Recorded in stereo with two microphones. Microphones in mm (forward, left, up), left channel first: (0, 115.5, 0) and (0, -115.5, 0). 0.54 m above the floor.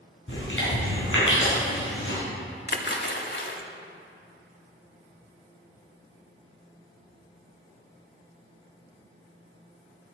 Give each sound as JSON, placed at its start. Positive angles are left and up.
{"t": 0.3, "sound": "chewing", "side_deg": 60, "distance_m": 3.5}
{"t": 2.7, "sound": "a splash", "side_deg": 50, "distance_m": 0.9}